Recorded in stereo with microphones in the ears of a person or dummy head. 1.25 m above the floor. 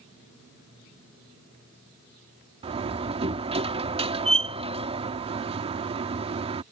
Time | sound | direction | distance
2.6 | a door slam | 30° right (ahead or behind) | ?